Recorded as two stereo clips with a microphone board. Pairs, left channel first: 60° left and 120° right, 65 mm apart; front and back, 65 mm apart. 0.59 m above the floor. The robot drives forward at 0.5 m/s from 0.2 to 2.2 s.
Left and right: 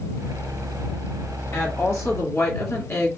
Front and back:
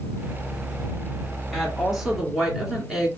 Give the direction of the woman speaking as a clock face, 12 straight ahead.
9 o'clock.